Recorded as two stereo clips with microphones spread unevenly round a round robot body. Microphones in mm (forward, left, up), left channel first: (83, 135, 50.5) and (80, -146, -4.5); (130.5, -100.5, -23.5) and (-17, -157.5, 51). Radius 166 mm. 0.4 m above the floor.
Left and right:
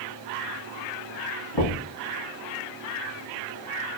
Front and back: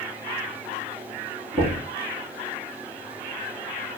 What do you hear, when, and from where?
1.5 s knocking: 110° left, 2.5 m